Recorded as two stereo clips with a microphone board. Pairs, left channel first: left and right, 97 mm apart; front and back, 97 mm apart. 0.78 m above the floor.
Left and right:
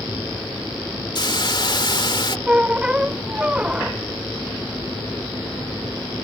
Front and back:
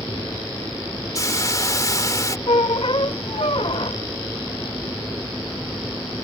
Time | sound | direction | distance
1.1 | a hiss | 55° left | ?
2.5 | a squeak | 10° right | ?